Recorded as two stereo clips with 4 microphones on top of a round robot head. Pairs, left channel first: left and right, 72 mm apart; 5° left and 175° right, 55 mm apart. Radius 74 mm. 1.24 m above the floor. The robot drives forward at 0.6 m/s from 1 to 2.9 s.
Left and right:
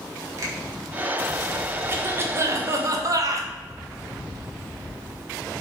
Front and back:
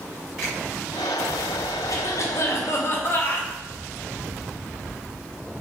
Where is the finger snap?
45° right, 2 m.